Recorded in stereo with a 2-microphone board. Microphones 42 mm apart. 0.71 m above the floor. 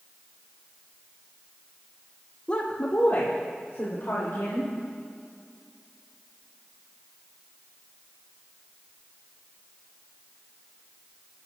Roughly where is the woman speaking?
Left.